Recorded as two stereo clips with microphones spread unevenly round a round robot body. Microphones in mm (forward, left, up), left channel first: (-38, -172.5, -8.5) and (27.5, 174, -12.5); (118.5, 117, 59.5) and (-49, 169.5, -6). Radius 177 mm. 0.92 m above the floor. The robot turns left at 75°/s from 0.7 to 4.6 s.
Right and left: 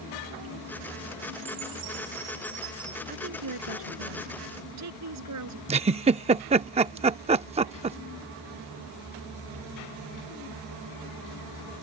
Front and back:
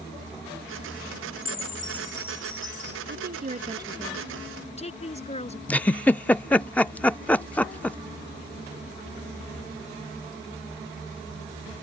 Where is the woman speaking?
150° left; by 5.6 s 35° left.